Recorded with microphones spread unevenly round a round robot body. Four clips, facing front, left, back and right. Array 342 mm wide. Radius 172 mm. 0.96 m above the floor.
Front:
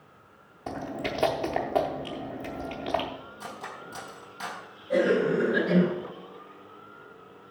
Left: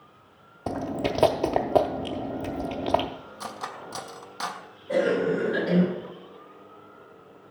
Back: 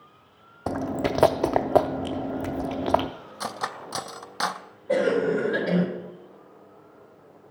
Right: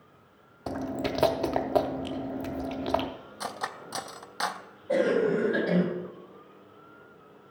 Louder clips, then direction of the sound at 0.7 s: Left 3 dB, back 7 dB; 150° left.